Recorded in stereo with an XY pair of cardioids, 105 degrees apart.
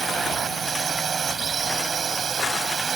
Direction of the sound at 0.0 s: 45° right.